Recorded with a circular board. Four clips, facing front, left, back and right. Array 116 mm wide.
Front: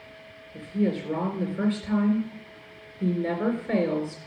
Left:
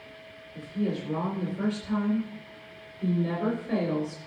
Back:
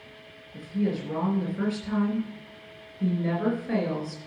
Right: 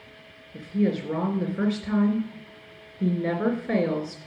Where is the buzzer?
I don't hear a buzzer.